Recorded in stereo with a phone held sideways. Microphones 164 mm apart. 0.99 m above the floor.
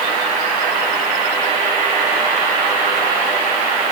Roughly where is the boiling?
I don't hear boiling.